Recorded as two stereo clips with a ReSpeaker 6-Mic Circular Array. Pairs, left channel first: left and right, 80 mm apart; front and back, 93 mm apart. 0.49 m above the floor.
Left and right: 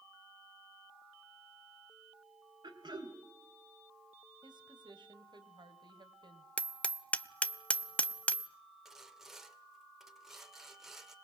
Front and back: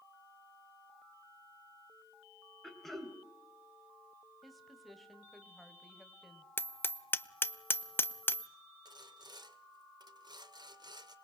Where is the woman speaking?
90° right, 2.5 m.